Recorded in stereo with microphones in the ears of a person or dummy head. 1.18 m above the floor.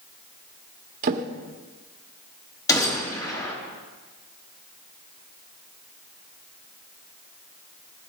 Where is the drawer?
45° right (ahead or behind), 1.3 m.